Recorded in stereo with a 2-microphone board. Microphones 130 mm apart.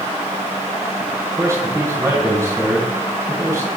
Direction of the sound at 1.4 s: 20° right (ahead or behind).